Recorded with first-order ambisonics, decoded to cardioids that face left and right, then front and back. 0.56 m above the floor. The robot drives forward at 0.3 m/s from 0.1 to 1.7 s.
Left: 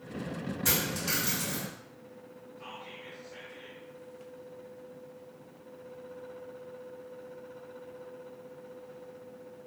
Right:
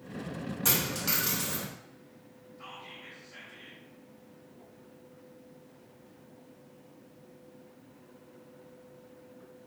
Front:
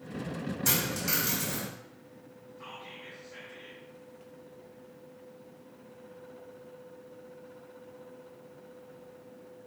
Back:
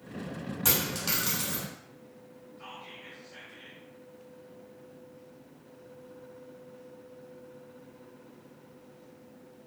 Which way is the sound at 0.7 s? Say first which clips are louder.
Even, back 1 dB; 155° right.